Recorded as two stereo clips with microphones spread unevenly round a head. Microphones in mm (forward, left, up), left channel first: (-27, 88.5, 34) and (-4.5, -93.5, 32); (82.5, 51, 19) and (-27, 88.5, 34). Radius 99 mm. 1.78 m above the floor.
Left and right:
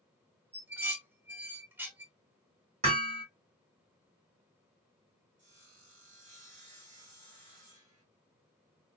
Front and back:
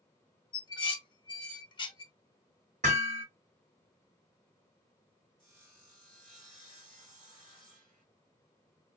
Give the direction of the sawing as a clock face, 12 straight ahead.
4 o'clock.